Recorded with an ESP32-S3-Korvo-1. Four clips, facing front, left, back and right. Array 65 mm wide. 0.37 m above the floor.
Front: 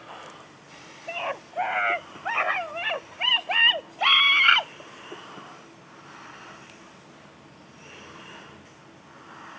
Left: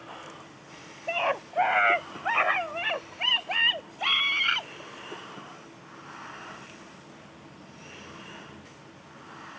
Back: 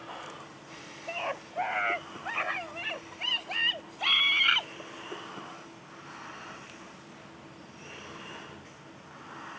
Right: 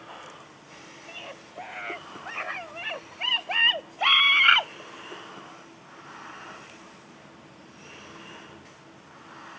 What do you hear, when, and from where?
1.1 s a scream: 80° left; by 4.7 s 45° right